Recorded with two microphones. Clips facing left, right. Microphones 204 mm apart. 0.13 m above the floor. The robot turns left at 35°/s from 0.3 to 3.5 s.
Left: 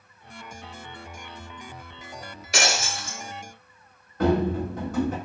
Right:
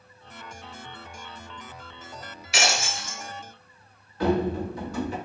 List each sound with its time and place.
2.5 s breaking glass: 45° left (ahead or behind), 0.8 m; by 3.2 s 30° left (ahead or behind), 0.8 m
4.2 s running footsteps: 50° left (ahead or behind), 1.3 m